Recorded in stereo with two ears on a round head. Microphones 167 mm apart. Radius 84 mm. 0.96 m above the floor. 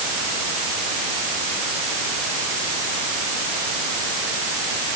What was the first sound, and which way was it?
Only background noise.